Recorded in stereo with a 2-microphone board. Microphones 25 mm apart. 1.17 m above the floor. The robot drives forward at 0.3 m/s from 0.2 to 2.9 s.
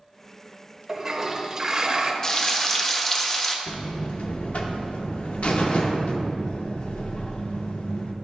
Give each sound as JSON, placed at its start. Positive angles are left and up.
{"t": 0.9, "sound": "a toilet flushing", "side_deg": -20, "distance_m": 0.9}
{"t": 2.2, "sound": "frying", "side_deg": 25, "distance_m": 0.5}
{"t": 3.7, "sound": "a buzzer", "side_deg": 65, "distance_m": 0.6}